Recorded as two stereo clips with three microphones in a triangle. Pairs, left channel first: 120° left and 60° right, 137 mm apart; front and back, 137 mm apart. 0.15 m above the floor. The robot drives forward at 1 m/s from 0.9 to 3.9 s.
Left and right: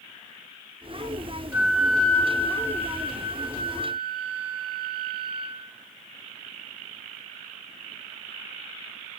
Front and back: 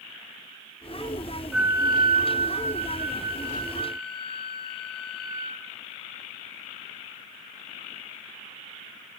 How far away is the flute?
About 0.6 m.